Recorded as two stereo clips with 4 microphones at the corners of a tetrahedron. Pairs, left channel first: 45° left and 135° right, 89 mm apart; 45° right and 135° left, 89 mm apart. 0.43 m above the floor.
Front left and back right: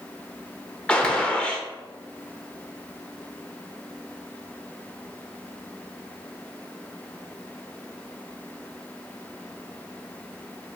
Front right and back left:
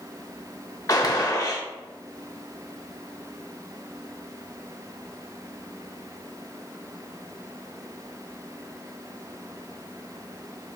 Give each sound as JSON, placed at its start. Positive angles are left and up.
{"t": 0.9, "sound": "a gunshot", "azimuth_deg": -30, "distance_m": 0.7}